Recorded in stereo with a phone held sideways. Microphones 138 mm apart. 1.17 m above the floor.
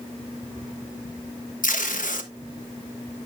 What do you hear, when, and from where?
1.6 s tape being pulled: 70° left (ahead or behind), 1.2 m